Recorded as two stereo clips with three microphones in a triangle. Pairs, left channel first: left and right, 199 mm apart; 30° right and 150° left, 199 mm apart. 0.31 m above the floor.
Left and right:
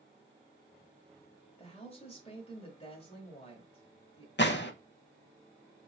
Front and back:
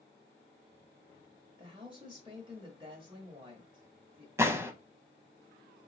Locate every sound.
1.6 s a woman speaking: 110° left, 1.0 m
4.4 s a gunshot: 75° left, 0.6 m